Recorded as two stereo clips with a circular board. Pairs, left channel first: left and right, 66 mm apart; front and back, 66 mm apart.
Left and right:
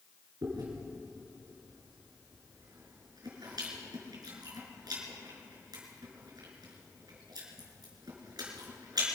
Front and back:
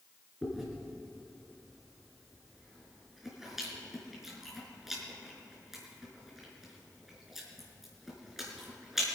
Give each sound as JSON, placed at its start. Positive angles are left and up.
{"t": 0.4, "sound": "chewing", "azimuth_deg": -95, "distance_m": 4.0}